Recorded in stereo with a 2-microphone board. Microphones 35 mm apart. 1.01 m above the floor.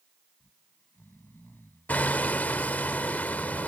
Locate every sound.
0.4 s snoring: 80° left
1.9 s hammering: 50° left (ahead or behind)